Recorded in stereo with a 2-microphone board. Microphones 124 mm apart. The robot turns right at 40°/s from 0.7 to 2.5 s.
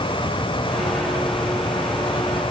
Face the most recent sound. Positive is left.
No sound to turn to.